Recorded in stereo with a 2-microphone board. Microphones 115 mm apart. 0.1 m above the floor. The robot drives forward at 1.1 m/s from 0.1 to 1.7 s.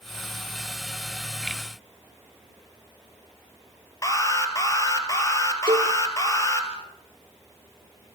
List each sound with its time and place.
4.0 s an alarm: 25° left (ahead or behind), 3 m
5.7 s a cowbell: 45° right (ahead or behind), 2 m